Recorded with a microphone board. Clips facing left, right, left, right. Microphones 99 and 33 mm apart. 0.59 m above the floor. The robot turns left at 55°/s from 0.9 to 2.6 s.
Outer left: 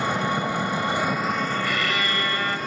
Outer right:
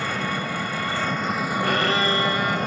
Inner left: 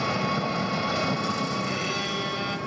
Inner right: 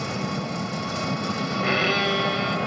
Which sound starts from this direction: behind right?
A violin, at 1.6 s.